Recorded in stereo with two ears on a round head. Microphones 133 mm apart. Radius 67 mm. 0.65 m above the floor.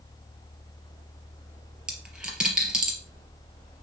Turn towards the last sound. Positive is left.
turn(degrees=-5)  # may be behind; listen again after turning